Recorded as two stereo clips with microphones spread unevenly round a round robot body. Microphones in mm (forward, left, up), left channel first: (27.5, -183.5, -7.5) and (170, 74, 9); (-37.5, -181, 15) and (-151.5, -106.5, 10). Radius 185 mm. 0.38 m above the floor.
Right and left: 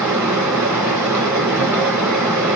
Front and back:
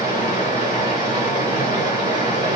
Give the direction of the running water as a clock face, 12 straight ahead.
1 o'clock.